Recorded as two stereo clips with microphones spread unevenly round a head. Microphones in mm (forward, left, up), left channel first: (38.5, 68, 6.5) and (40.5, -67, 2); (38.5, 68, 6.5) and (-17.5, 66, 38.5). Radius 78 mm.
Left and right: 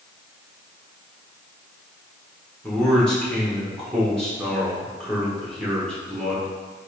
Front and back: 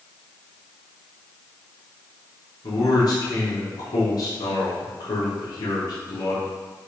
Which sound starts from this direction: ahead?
A man speaking, at 2.6 s.